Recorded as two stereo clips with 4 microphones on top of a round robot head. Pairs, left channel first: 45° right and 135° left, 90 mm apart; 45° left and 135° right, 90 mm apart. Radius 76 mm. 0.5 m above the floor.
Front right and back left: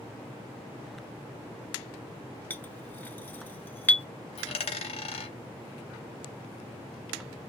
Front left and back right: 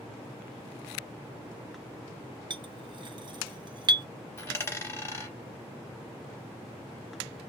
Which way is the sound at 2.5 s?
115° right.